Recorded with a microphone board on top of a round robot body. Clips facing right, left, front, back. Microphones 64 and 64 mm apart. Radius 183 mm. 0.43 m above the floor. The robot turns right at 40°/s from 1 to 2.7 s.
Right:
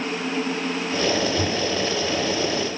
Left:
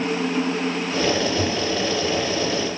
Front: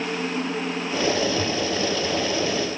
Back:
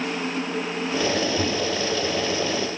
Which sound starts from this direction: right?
A microwave, at 1.4 s.